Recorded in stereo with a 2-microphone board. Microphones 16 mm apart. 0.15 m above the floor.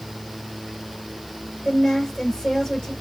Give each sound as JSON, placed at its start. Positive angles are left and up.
{"t": 1.6, "sound": "a woman speaking", "side_deg": 50, "distance_m": 3.5}